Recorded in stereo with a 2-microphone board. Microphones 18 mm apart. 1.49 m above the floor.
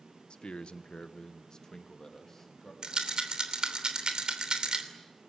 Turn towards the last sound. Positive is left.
turn(degrees=-55)  # may be behind; listen again after turning